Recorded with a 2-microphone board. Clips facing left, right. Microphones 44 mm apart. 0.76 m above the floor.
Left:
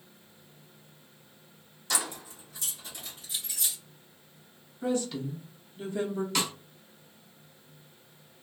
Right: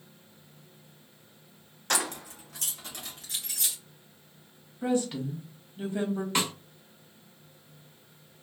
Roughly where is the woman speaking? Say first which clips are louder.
Right 2 dB; right.